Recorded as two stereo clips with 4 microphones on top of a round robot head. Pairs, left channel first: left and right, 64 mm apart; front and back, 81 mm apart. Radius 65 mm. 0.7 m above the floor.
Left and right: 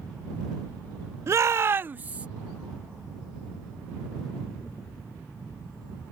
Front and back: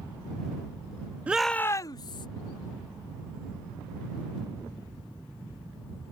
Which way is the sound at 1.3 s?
115° right.